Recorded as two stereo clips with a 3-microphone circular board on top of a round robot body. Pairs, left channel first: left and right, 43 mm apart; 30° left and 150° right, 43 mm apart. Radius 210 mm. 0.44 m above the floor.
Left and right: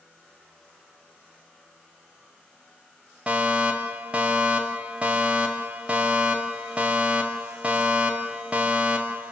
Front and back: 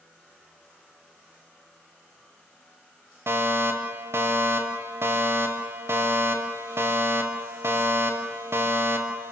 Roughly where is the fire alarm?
Behind right.